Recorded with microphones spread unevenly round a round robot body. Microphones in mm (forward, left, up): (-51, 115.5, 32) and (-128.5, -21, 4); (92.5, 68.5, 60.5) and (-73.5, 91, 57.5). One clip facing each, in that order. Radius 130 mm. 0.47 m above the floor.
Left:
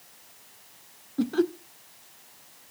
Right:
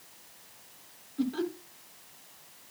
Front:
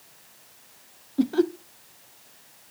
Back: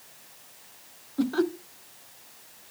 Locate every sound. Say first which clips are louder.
1.2 s laughter: left 6 dB, front 3 dB; 50° left, 1.5 m